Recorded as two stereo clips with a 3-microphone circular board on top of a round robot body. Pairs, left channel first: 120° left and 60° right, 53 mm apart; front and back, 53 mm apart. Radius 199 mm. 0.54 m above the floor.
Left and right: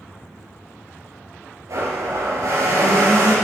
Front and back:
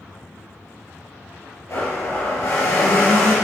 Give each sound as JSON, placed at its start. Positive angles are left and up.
{"t": 1.7, "sound": "a blender", "azimuth_deg": -35, "distance_m": 4.5}